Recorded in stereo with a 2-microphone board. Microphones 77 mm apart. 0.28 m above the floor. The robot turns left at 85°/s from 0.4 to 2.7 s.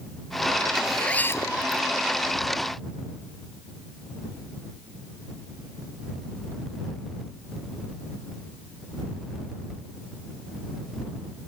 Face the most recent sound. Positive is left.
turn(degrees=30)